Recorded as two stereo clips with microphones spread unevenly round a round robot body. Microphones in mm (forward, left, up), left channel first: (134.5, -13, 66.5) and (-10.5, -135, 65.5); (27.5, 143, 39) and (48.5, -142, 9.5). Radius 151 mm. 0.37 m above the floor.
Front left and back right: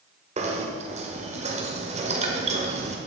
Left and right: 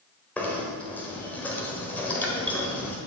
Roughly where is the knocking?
Behind.